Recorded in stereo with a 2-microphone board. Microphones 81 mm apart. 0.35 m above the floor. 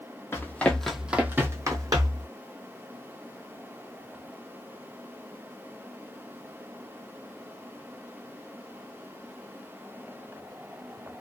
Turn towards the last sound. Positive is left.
turn(degrees=-55)  # may be behind; listen again after turning